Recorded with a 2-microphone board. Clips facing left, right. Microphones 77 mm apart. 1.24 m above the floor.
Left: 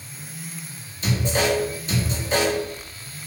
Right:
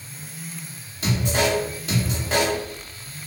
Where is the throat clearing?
No throat clearing in this recording.